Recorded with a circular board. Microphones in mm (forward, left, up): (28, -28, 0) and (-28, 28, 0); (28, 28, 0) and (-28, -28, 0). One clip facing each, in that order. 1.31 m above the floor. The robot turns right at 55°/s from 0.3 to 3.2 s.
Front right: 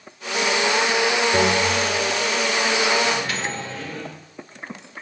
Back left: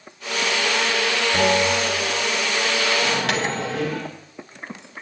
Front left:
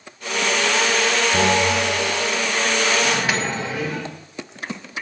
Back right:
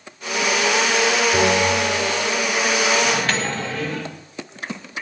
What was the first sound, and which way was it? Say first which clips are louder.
A bell: even, back right 1 dB; 80° right.